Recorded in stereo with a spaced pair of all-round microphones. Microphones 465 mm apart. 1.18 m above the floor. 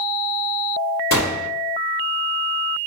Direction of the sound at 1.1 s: 35° left (ahead or behind).